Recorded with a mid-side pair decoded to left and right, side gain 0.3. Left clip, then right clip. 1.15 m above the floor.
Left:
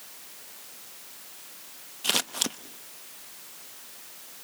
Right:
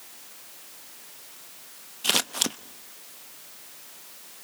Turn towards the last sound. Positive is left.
turn(degrees=-30)